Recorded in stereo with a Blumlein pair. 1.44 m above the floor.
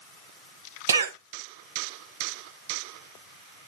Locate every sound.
0.9 s a cough: 65° right, 1.0 m